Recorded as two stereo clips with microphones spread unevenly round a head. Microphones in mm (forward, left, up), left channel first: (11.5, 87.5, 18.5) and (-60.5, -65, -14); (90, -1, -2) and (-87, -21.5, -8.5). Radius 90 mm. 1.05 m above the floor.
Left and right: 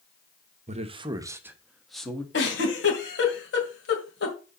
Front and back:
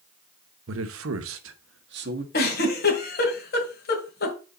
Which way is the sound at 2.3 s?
45° left.